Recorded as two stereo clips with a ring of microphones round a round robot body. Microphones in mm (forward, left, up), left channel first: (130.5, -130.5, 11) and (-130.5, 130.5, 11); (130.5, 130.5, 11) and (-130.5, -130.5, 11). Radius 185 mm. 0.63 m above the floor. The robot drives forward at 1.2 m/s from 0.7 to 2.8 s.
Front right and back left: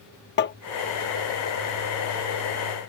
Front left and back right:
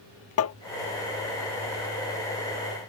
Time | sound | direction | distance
0.4 | tapping | 10° left | ?